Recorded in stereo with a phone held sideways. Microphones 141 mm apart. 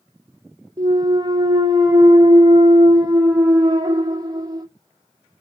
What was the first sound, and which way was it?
A clunk, 30° right (ahead or behind).